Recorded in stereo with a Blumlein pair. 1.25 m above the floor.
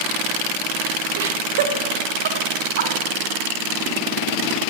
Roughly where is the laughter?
Ahead right.